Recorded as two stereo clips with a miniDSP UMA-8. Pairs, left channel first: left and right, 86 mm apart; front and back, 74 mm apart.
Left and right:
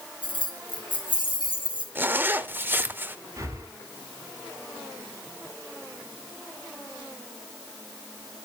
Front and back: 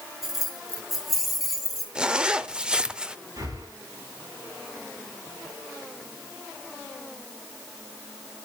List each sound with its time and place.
0.2 s keys jangling: 95° left, 2.5 m
1.9 s a zipper: 115° right, 0.7 m
3.4 s breathing: 145° right, 4 m